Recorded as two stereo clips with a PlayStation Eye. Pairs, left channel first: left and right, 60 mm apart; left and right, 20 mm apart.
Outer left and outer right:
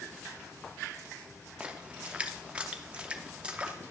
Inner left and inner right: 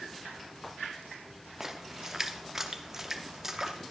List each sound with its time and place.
1.6 s a splash: 20° right (ahead or behind), 0.6 m